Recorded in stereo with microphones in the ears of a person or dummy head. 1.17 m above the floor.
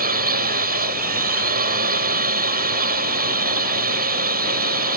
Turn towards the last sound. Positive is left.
turn(degrees=-45)  # may be behind; listen again after turning